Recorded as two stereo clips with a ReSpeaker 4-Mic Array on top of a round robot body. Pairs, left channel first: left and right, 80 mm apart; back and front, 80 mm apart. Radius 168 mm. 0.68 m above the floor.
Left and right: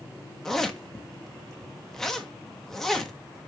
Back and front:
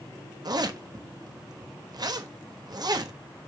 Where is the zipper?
5° left, 1.3 m.